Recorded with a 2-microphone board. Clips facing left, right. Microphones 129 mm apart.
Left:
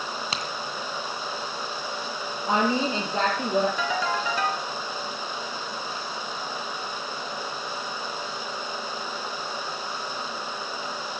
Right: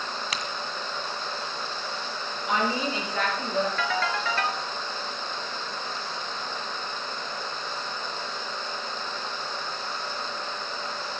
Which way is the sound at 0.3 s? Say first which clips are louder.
Left 1 dB; 30° left (ahead or behind).